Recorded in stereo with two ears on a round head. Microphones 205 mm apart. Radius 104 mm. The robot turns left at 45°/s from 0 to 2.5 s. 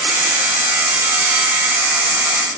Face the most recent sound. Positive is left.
No sound to turn to.